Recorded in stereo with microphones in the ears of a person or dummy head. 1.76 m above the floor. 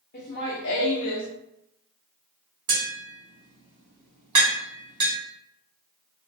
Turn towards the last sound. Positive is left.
turn(degrees=-30)  # may be behind; listen again after turning